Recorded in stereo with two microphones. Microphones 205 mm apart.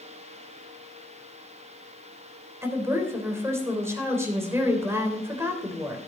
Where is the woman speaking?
15° right (ahead or behind), 3 m.